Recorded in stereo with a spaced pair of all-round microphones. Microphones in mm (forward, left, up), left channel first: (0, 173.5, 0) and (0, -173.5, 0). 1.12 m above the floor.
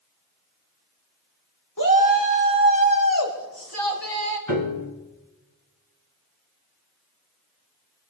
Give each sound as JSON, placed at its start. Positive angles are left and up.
{"t": 1.8, "sound": "a shout", "side_deg": 55, "distance_m": 3.5}
{"t": 4.5, "sound": "a piano", "side_deg": 55, "distance_m": 3.5}